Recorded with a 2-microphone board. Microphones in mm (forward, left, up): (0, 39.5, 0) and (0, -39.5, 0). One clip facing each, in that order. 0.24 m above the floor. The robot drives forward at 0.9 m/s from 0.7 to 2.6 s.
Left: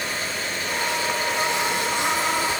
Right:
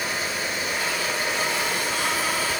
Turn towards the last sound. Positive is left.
No sound to turn to.